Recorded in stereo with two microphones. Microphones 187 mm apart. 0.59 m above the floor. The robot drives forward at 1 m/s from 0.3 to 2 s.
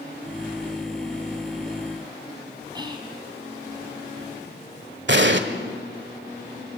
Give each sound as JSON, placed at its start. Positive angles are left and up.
{"t": 2.8, "sound": "whispering", "side_deg": -25, "distance_m": 4.5}
{"t": 5.1, "sound": "an explosion", "side_deg": -70, "distance_m": 1.4}